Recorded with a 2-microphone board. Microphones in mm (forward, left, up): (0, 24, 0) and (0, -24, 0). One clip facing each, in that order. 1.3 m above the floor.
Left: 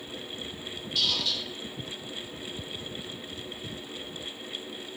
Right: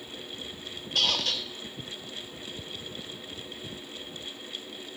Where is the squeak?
50° right (ahead or behind), 0.8 m.